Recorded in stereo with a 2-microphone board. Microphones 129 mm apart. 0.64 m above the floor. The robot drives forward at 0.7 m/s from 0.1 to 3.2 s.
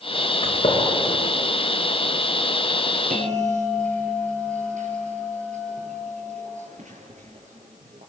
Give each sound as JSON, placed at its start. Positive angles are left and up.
{"t": 0.4, "sound": "a gunshot", "side_deg": 45, "distance_m": 6.0}
{"t": 3.1, "sound": "a bell", "side_deg": -80, "distance_m": 8.0}